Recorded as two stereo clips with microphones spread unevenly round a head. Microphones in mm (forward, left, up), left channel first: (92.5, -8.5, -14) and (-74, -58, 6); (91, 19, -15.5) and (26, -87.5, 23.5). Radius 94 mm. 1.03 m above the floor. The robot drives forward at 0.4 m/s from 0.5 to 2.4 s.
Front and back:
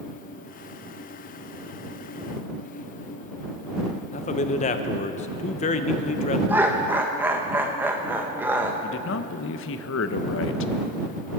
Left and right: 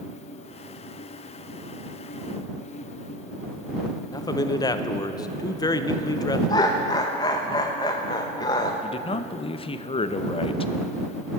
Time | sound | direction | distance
4.1 | a man speaking | 40° left | 0.5 m
6.5 | laughter | 115° left | 0.8 m
8.8 | a man speaking | 20° left | 0.6 m